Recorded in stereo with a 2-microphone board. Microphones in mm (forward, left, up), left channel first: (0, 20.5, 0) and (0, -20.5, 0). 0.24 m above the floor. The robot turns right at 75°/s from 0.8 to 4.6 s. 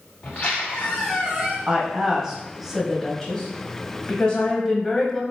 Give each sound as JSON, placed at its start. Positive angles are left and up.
{"t": 0.2, "sound": "a squeak", "azimuth_deg": 145, "distance_m": 2.5}
{"t": 1.7, "sound": "a woman speaking", "side_deg": -25, "distance_m": 1.3}